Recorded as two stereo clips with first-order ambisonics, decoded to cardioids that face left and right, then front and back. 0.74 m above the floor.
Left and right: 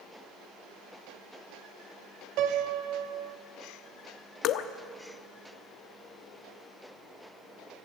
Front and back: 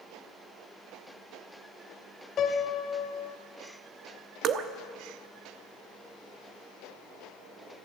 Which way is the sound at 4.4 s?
130° left.